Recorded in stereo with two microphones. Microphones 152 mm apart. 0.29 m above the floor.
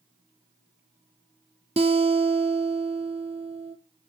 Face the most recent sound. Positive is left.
turn(degrees=-45)  # may be behind; listen again after turning